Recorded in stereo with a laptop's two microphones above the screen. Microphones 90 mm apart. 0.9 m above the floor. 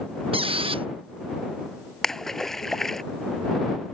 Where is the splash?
5° left (ahead or behind).